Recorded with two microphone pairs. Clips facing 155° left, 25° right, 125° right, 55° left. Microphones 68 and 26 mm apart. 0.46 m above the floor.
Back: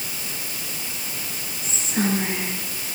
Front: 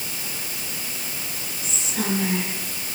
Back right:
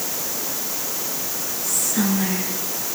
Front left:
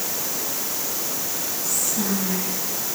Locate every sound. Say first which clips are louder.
1.6 s whispering: back 4 dB, back right 4 dB; 150° right, 7.5 m